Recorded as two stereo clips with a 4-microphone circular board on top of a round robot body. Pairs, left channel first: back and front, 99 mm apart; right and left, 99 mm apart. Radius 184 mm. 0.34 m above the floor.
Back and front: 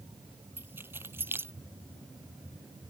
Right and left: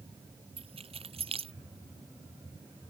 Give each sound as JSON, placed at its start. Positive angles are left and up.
{"t": 0.6, "sound": "keys jangling", "azimuth_deg": 70}